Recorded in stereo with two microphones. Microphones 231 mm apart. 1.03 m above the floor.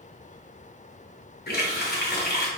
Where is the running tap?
45° left (ahead or behind), 0.7 m.